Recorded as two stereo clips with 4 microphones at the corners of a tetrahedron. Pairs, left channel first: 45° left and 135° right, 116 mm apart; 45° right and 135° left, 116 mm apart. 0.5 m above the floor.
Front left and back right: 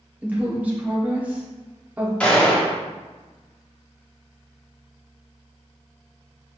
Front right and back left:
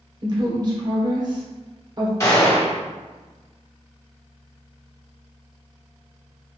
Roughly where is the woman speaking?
Behind left.